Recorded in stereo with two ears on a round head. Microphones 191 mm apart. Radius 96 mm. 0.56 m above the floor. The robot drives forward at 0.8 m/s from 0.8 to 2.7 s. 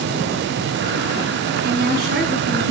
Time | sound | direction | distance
1.6 | a woman speaking | 50° right (ahead or behind) | 5.5 m